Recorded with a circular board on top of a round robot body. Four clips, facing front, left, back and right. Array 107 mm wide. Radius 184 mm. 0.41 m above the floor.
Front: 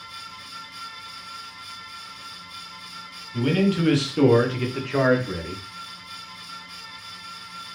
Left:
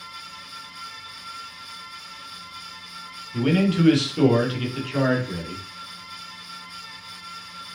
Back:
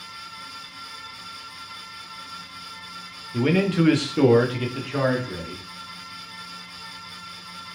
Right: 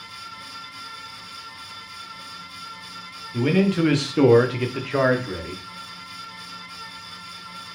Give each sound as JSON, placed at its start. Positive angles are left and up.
{"t": 3.3, "sound": "a man speaking", "azimuth_deg": -160, "distance_m": 1.4}